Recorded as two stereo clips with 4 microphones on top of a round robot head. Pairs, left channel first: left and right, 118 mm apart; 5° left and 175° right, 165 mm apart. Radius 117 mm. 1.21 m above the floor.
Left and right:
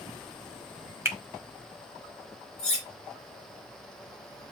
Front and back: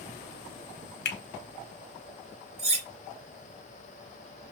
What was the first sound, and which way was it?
A finger snap, 20° right.